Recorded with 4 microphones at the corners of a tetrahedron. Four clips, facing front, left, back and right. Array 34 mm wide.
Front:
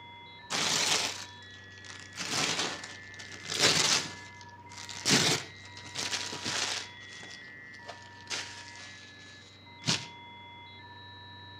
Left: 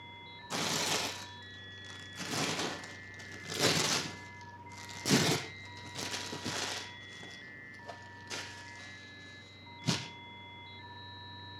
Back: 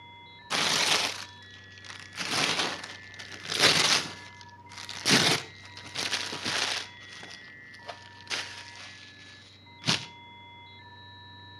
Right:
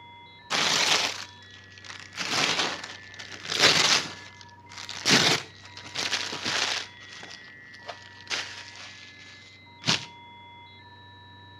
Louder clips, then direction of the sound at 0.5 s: Right 10 dB, back 3 dB; 105° right.